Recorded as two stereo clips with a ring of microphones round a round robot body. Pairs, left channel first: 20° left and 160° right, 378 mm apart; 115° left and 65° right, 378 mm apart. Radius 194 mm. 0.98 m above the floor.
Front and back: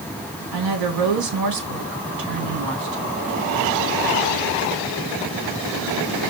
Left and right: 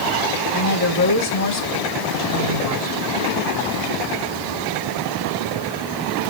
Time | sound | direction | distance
0.5 | a woman speaking | 160° left | 2.5 m